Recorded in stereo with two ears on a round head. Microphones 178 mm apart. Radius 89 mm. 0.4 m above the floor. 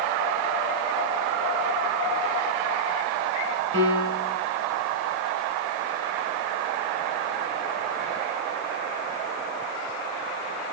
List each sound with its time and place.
3.7 s a piano: 70° right (ahead or behind), 2.5 m